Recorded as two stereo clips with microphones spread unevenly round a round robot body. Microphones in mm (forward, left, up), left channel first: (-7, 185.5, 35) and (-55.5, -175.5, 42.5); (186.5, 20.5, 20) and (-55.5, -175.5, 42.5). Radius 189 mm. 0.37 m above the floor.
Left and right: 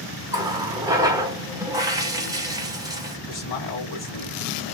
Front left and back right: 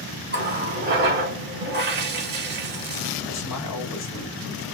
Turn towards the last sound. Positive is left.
turn(degrees=35)